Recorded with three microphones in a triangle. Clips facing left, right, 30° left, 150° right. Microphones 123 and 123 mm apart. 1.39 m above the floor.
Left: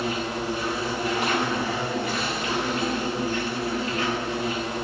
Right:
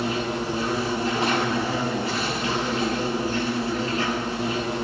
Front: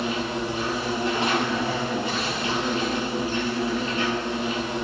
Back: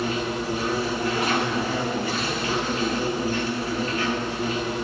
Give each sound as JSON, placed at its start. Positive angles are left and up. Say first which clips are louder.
{"t": 0.0, "sound": "an insect", "louder": "right 2 dB, back 1 dB", "azimuth_deg": -35, "distance_m": 3.5}